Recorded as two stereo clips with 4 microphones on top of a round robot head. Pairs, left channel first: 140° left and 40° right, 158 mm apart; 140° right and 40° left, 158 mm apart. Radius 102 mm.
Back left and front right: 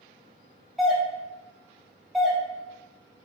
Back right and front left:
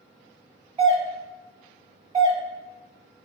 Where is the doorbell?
45° left, 1.2 m.